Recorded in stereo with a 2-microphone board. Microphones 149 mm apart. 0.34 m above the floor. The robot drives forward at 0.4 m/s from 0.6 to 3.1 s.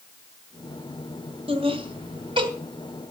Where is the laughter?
40° right (ahead or behind), 2 m; by 2.5 s 35° right (ahead or behind), 2.5 m.